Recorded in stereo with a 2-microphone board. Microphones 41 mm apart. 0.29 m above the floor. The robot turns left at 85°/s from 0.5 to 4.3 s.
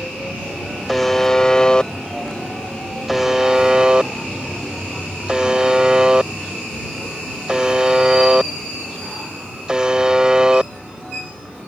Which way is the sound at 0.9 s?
Centre (ahead or behind).